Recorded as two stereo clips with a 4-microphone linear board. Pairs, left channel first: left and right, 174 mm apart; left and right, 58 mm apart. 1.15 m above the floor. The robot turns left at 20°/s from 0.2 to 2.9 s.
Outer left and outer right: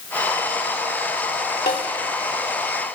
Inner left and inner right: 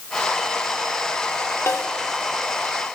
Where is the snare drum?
55° left (ahead or behind), 2.5 m; by 1.9 s 60° left (ahead or behind), 2.5 m.